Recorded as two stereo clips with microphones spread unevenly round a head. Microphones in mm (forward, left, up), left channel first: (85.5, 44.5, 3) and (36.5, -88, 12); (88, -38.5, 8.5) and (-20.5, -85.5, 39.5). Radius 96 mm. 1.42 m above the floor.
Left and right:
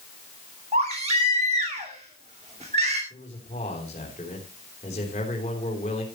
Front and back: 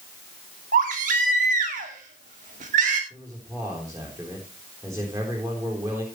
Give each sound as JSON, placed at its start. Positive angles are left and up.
{"t": 0.7, "sound": "a baby crying", "azimuth_deg": -170, "distance_m": 2.5}
{"t": 3.1, "sound": "a man speaking", "azimuth_deg": 130, "distance_m": 3.5}